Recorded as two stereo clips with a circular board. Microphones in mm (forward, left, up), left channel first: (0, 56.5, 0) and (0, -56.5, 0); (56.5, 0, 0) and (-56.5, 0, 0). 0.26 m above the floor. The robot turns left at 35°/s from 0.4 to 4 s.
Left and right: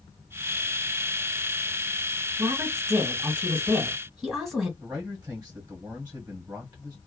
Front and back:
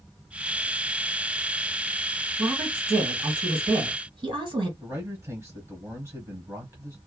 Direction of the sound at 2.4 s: 125° right.